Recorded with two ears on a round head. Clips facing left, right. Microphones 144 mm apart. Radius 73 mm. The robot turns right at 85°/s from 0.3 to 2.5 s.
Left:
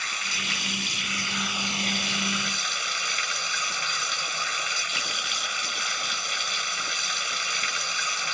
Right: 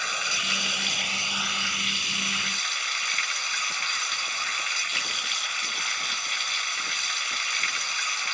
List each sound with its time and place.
0.0 s running water: 100° right; by 8.3 s 90° left